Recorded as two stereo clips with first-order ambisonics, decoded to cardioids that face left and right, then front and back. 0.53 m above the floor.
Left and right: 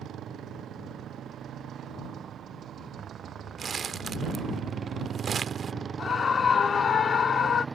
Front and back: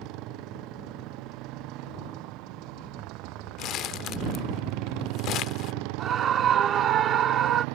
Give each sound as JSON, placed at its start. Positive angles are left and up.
{"t": 0.0, "sound": "a motorcycle", "azimuth_deg": -145}
{"t": 3.6, "sound": "crumpling", "azimuth_deg": -30}
{"t": 6.0, "sound": "a scream", "azimuth_deg": 145}